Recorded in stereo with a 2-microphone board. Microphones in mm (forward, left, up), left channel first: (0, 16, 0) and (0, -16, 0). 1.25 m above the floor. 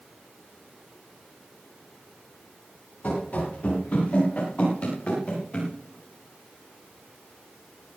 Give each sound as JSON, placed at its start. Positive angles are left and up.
{"t": 3.0, "sound": "running footsteps", "side_deg": 50, "distance_m": 8.0}